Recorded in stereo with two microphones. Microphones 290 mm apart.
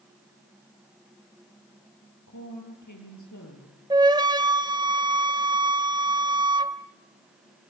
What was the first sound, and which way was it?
A woman speaking, 80° left.